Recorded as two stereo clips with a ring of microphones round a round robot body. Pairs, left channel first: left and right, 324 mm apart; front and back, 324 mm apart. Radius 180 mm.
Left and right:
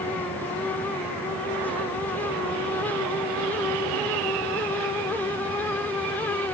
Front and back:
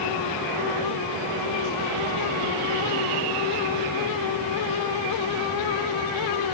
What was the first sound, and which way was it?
Only background noise.